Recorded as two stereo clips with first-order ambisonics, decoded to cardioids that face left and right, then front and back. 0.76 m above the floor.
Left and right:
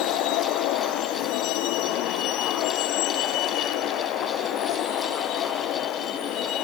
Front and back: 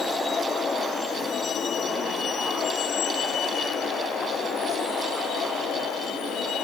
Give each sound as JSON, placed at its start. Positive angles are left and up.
{"t": 0.0, "sound": "a vehicle", "azimuth_deg": 70}